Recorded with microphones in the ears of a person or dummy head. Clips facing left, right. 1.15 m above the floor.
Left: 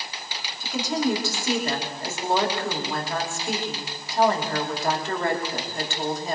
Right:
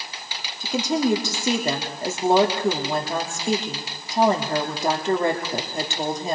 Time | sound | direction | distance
0.6 | a woman speaking | 15° right (ahead or behind) | 2.5 m